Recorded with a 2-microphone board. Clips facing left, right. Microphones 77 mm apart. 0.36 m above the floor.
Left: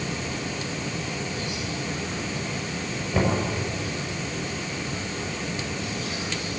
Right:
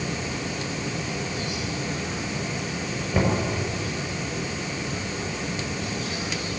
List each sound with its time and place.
3.1 s knocking: 15° right (ahead or behind), 6 m